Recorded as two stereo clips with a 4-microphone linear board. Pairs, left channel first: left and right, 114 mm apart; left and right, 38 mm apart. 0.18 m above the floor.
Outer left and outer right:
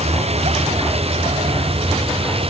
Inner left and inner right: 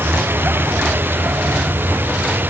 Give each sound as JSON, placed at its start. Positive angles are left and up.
{"t": 0.0, "sound": "a vehicle", "side_deg": -65}